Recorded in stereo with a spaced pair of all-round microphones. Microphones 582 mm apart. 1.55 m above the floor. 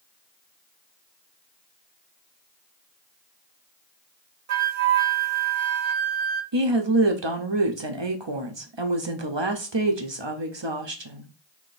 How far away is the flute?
About 0.6 m.